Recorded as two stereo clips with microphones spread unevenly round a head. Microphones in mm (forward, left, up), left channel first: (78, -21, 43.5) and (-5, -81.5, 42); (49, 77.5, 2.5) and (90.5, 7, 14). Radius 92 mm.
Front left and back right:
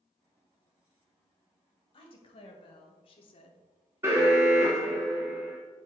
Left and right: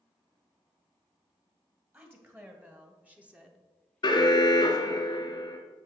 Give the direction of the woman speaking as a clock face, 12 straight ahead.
12 o'clock.